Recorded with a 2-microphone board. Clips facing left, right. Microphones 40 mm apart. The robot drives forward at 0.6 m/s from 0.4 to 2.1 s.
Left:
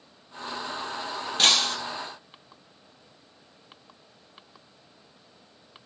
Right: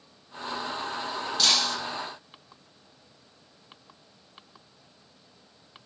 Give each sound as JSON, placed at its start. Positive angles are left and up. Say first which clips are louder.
{"t": 1.4, "sound": "breaking glass", "louder": "left 3 dB", "side_deg": 45, "distance_m": 4.0}